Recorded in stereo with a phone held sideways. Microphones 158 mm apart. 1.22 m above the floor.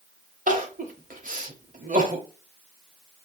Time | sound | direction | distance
0.5 | crying | 55° right (ahead or behind) | 1.1 m